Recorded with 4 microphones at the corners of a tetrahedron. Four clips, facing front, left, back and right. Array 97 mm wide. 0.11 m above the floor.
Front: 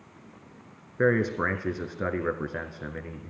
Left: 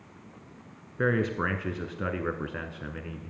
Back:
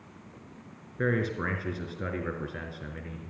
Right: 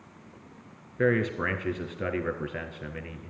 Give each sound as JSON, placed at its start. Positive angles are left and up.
{"t": 1.0, "sound": "a man speaking", "azimuth_deg": 5, "distance_m": 1.3}